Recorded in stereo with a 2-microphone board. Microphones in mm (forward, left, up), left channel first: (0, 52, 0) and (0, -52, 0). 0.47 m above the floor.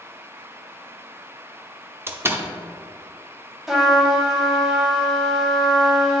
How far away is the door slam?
About 0.6 m.